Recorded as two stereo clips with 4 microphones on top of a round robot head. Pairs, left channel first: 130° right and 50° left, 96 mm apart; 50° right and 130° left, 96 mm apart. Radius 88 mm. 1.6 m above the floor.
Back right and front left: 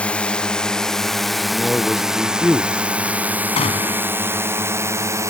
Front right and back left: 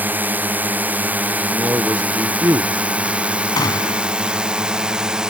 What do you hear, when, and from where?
0.0 s a drone: 170° left; by 5.3 s 55° left
1.5 s a man speaking: 160° left
3.6 s a gunshot: 105° right